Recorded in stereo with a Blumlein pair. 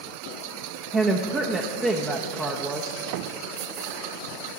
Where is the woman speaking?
15° right, 0.9 m.